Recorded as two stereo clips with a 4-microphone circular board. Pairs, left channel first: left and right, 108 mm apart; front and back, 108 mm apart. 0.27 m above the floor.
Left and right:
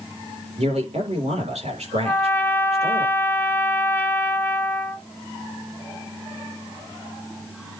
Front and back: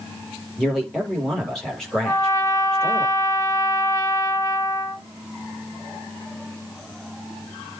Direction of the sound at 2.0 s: 30° left.